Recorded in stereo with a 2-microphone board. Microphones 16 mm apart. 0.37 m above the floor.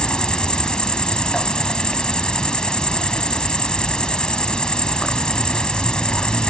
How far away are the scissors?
No scissors in this recording.